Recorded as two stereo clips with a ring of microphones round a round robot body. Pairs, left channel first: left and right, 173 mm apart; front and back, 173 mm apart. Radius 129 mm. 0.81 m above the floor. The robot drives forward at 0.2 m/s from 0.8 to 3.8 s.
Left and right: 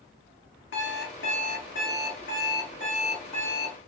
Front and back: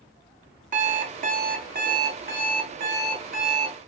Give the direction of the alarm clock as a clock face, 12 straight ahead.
8 o'clock.